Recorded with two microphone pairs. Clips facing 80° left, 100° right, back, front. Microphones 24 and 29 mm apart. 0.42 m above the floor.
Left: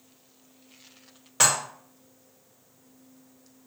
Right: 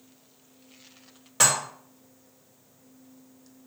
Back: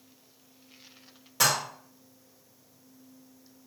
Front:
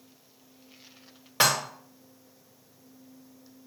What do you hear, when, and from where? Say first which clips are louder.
1.4 s dishes clattering: even, front 2 dB; 5° right, 0.6 m